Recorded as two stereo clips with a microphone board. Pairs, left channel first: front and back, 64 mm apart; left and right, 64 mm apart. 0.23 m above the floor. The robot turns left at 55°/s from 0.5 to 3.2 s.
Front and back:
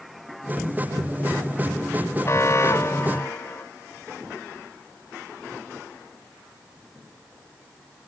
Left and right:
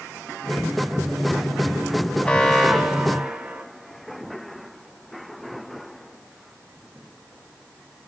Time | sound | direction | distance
2.2 | an alarm | 25° left | 1.9 m